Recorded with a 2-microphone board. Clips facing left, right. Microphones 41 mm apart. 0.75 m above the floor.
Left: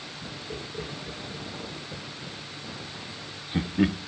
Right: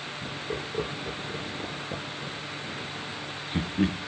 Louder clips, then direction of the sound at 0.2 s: Right 4 dB; 40° right (ahead or behind).